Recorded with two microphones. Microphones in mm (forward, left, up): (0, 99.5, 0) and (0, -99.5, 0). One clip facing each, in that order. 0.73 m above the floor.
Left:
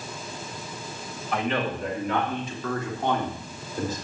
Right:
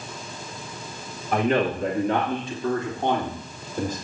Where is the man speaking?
40° right (ahead or behind), 1.2 m; by 4.0 s 15° right (ahead or behind), 2.5 m.